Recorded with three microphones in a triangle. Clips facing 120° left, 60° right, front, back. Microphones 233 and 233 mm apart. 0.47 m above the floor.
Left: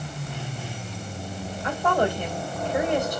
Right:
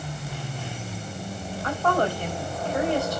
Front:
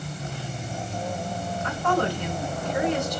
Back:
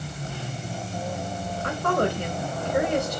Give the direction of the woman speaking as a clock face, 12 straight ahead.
6 o'clock.